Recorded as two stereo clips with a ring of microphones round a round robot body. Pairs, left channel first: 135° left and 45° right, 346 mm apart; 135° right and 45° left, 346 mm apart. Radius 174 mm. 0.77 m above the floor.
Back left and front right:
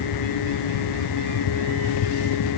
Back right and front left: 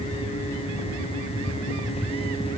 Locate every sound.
Only background noise.